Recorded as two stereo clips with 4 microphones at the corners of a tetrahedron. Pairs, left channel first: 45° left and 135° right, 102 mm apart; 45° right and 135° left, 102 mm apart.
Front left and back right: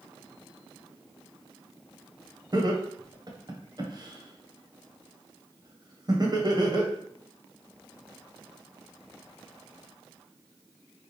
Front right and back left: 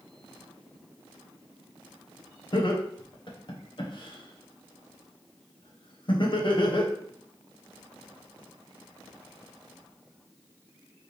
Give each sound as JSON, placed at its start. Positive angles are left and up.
{"t": 2.5, "sound": "laughter", "azimuth_deg": -85, "distance_m": 1.0}